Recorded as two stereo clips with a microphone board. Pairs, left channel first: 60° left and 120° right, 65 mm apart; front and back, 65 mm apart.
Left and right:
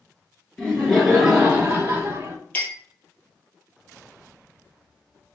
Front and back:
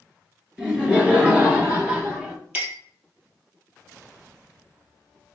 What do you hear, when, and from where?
0.6 s laughter: 115° left, 1.1 m; by 2.4 s 140° right, 1.3 m
2.5 s a clink: 115° left, 1.7 m